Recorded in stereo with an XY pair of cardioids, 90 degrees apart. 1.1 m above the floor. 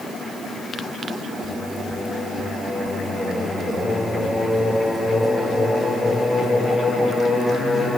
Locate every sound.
1.4 s singing: 35° left, 8.5 m